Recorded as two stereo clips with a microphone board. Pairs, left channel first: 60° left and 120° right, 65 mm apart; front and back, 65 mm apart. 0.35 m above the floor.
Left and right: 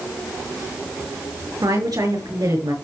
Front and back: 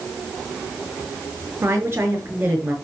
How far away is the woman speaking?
About 5.5 m.